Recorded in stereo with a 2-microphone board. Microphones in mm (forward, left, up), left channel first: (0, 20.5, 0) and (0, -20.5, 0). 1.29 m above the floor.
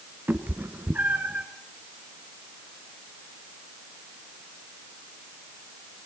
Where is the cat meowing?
45° right (ahead or behind), 1.7 m; by 1.5 s 40° right (ahead or behind), 2 m.